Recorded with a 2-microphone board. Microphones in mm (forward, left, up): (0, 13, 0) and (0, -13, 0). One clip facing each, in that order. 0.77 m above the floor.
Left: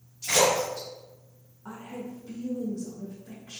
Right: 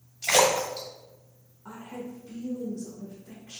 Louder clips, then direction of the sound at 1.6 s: Even; 15° left (ahead or behind).